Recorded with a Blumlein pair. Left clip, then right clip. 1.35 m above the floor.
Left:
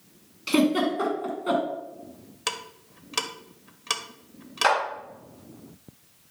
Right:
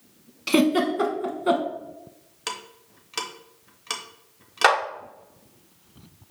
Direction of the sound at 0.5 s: 20° right.